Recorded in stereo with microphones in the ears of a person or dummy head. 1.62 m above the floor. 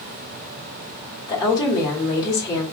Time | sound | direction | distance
1.3 | a woman speaking | 20° left (ahead or behind) | 1.4 m